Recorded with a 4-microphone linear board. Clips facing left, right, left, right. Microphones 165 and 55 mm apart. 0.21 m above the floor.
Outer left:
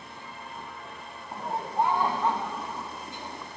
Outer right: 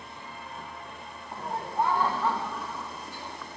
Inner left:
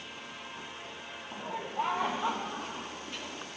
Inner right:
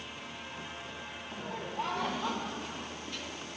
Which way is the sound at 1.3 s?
15° left (ahead or behind).